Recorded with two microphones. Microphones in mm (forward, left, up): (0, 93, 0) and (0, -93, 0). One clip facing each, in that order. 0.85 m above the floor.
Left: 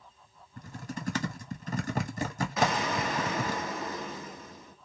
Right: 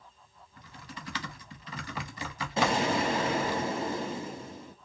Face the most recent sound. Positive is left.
turn(degrees=-30)  # may be behind; listen again after turning